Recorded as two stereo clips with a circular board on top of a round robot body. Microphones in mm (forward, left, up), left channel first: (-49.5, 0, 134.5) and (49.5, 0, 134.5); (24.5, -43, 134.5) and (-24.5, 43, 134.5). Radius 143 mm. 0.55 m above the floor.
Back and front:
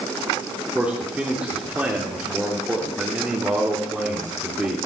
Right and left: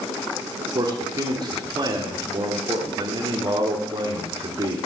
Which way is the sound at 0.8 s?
75° left.